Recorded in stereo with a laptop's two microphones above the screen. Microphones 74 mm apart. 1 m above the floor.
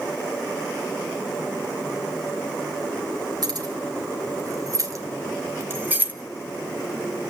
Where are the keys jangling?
65° right (ahead or behind), 3 m; by 6.1 s 25° right (ahead or behind), 1.5 m.